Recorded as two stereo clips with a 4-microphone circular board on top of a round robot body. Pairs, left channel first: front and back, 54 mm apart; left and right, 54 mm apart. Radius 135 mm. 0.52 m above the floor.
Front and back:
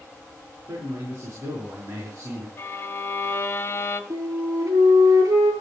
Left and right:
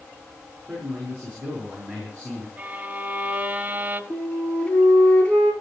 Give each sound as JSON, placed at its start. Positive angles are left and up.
{"t": 0.7, "sound": "a man speaking", "azimuth_deg": -160, "distance_m": 8.5}
{"t": 2.6, "sound": "a violin", "azimuth_deg": -35, "distance_m": 2.5}
{"t": 4.1, "sound": "a flute", "azimuth_deg": 160, "distance_m": 5.0}